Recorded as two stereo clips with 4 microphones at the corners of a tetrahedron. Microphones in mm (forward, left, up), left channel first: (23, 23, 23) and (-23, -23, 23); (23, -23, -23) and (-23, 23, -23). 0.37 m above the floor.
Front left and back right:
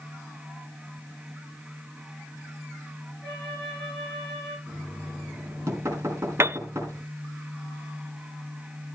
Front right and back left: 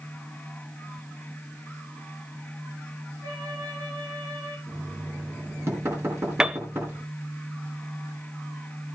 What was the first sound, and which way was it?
A flute, 120° left.